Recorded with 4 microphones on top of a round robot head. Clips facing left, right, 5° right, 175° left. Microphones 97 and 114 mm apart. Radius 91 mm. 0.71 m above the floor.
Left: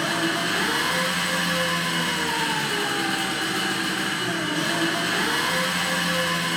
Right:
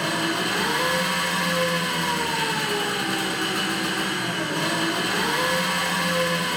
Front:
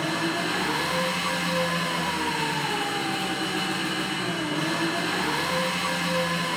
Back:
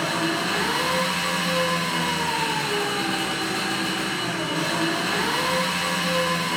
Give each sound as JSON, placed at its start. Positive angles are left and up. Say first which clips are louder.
{"t": 0.0, "sound": "an engine running", "louder": "even, back 2 dB", "azimuth_deg": -120, "distance_m": 1.3}